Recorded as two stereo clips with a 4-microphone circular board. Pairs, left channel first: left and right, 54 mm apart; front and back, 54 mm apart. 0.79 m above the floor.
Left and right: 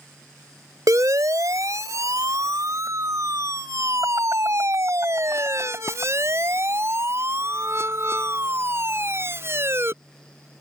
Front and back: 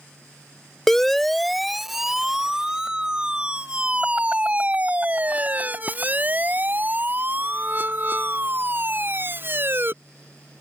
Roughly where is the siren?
Right.